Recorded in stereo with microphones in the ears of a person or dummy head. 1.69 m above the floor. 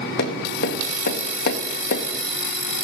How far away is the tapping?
About 1.3 m.